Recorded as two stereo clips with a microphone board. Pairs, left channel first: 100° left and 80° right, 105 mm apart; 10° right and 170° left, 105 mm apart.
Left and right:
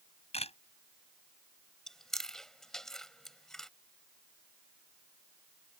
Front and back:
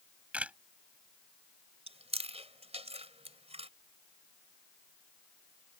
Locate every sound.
0.3 s a camera shutter: 90° left
1.9 s chewing: 175° right